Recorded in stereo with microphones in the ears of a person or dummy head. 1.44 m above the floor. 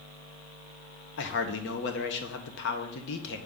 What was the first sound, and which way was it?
A man speaking, 65° left (ahead or behind).